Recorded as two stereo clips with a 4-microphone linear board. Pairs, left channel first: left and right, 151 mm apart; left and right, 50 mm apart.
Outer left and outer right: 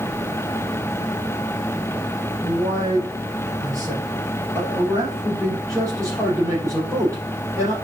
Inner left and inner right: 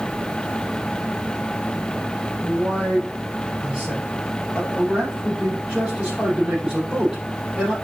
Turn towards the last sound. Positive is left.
turn(degrees=-20)  # may be behind; listen again after turning